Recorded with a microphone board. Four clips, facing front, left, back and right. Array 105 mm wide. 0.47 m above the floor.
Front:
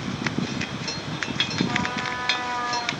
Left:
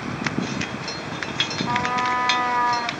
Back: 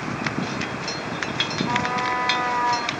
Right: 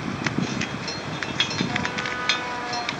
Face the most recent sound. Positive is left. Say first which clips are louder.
# left 6 dB, back 4 dB
turn(degrees=110)